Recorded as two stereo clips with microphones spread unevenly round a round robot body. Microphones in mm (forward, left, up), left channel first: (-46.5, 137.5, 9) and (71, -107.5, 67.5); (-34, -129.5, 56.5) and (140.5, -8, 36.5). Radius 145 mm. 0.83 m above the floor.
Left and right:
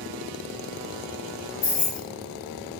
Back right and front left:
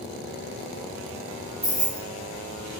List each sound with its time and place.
1.6 s keys jangling: 105° left, 1.9 m